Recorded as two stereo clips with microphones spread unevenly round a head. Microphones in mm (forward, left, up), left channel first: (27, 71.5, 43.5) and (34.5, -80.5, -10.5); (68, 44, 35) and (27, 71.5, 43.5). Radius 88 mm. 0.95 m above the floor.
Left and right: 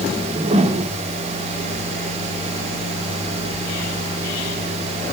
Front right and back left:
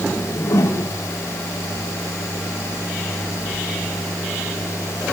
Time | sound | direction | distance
0.2 | a whoosh | 40° right | 3 m